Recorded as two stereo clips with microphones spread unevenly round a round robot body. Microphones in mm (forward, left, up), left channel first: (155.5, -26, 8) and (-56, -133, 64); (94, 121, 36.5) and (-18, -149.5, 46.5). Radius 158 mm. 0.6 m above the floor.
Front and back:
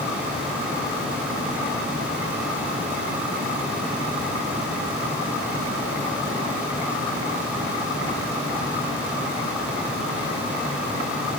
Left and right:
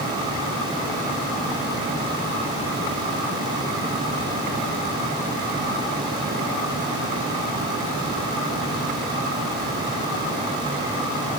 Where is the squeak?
I don't hear a squeak.